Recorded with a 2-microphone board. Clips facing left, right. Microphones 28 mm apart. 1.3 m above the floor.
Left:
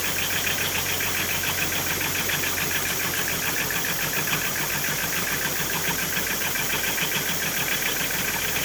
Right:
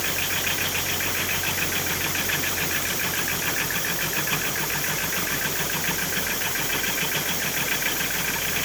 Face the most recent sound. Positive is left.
No sound to turn to.